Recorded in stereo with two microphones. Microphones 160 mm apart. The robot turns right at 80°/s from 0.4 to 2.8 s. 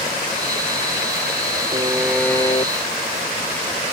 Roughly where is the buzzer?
Ahead right.